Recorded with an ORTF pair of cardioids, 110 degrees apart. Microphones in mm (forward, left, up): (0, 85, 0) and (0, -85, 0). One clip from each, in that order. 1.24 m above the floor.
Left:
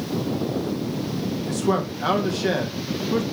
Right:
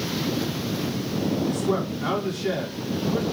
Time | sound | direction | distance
1.5 | a man speaking | 65° left | 2 m